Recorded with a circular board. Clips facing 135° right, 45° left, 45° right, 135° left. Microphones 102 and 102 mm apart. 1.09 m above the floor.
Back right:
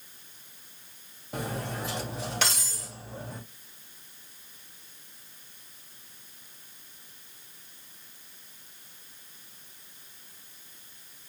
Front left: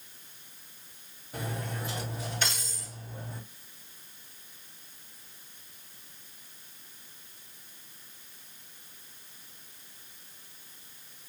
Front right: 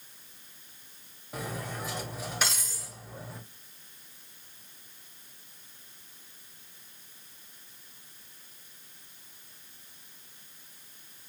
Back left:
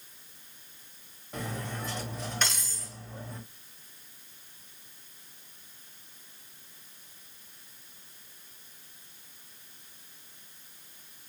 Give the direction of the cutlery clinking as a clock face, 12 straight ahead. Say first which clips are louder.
Back right 3 dB, even; 4 o'clock.